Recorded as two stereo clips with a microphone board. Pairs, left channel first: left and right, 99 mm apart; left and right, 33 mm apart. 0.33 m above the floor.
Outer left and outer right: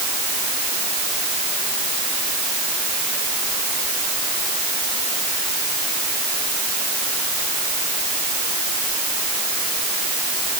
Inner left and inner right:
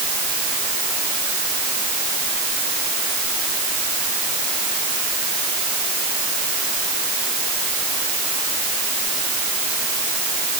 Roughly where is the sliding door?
I don't hear a sliding door.